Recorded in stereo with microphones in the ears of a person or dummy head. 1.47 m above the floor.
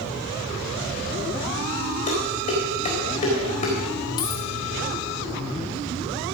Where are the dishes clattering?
40° left (ahead or behind), 4 m.